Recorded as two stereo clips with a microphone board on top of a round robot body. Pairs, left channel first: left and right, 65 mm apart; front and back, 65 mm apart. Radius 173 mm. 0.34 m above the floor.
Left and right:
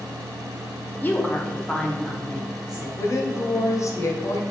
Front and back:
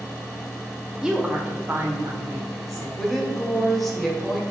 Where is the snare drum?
No snare drum in this recording.